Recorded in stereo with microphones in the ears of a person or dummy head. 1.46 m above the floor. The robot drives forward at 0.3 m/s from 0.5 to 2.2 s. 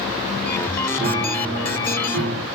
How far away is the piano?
About 0.7 m.